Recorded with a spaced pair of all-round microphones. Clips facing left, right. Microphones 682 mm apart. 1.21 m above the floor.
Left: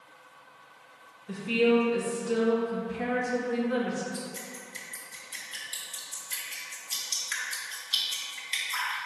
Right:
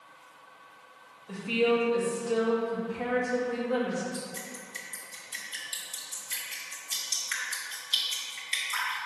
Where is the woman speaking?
45° left (ahead or behind), 1.5 m.